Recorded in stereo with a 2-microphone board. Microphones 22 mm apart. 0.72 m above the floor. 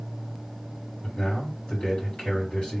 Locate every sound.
1.0 s a man speaking: 60° left (ahead or behind), 3 m